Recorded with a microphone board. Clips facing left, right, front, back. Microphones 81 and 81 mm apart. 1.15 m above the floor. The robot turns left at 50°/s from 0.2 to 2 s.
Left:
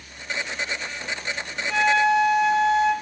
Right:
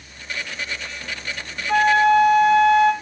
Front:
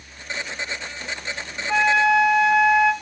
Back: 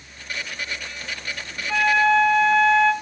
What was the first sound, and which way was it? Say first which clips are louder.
A flute: right 4 dB, even; 70° right.